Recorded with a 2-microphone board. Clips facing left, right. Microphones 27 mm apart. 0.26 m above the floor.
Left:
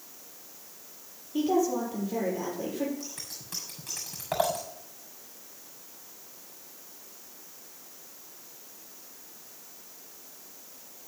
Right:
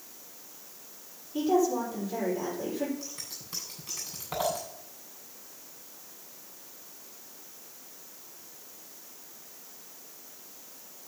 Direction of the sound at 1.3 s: 30° left (ahead or behind).